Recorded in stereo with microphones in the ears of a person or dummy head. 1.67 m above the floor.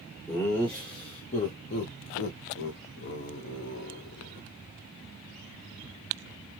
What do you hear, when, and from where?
0.3 s laughter: 10° left (ahead or behind), 1.1 m; by 4.5 s 55° left (ahead or behind), 1.6 m